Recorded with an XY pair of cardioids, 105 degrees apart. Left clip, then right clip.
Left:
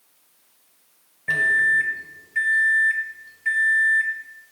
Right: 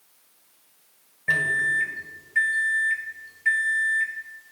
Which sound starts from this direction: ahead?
A microwave, at 1.3 s.